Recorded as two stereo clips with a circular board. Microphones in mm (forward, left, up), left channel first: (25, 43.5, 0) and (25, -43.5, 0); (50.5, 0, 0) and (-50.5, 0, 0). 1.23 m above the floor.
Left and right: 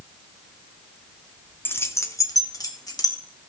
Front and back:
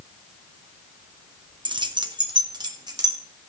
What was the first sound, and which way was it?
Keys jangling, 150° left.